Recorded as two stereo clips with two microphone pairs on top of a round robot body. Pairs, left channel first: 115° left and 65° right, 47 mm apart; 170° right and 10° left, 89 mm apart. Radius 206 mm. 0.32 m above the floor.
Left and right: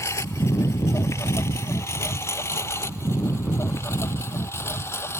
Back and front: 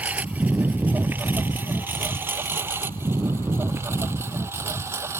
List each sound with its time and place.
0.0 s a lawn mower: 85° left; by 5.2 s 75° left